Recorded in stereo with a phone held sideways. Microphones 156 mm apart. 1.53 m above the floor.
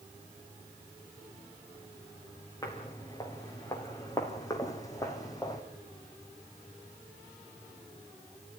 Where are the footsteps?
20° left (ahead or behind), 5.5 m.